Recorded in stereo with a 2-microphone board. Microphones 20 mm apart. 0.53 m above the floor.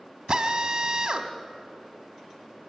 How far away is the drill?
About 1.4 m.